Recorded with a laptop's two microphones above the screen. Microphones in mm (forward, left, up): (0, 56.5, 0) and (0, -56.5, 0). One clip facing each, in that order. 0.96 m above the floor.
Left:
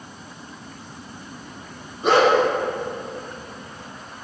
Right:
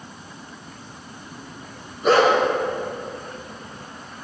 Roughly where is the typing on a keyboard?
No typing on a keyboard in this recording.